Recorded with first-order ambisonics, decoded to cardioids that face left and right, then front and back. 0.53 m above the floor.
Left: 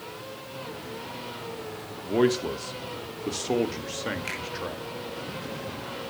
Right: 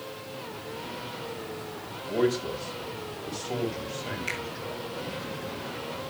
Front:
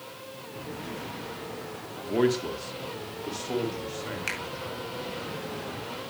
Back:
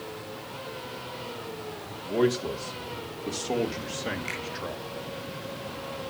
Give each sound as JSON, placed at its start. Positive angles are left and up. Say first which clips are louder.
{"t": 2.0, "sound": "a man speaking", "louder": "left 3 dB, even", "azimuth_deg": 75, "distance_m": 0.9}
{"t": 4.3, "sound": "a finger snap", "louder": "right 1 dB, front 2 dB", "azimuth_deg": 15, "distance_m": 5.0}